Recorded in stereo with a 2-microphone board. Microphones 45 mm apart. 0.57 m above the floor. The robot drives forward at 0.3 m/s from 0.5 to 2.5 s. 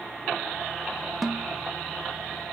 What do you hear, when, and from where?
1.2 s a snare drum: 5° right (ahead or behind), 0.6 m